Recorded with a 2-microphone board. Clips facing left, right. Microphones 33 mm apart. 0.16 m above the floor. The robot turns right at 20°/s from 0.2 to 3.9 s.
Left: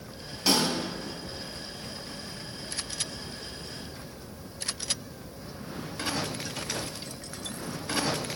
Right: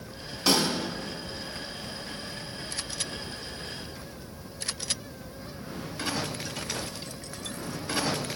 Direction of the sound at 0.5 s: 5° left (ahead or behind).